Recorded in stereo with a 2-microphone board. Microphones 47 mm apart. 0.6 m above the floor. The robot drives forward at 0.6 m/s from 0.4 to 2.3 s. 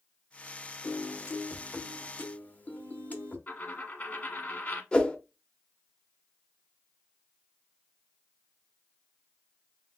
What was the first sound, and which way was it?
A piano, 65° left (ahead or behind).